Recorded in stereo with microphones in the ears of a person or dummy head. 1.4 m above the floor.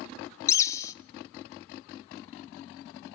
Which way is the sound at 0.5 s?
15° left (ahead or behind).